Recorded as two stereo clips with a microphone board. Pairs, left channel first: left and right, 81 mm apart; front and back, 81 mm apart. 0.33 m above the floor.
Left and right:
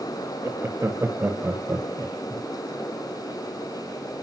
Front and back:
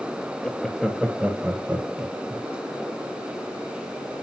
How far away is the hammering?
I don't hear hammering.